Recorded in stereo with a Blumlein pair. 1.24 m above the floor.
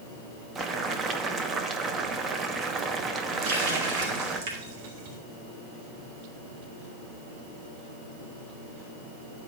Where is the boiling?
20° right, 0.9 m.